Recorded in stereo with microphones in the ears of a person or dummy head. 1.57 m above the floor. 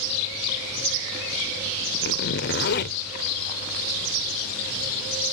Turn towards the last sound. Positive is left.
turn(degrees=50)  # may be behind; listen again after turning